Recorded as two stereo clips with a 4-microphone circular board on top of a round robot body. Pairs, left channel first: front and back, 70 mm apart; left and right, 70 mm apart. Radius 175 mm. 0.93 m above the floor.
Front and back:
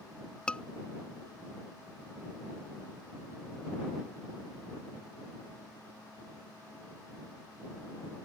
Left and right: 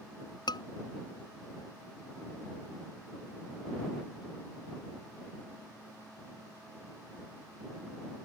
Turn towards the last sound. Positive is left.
turn(degrees=80)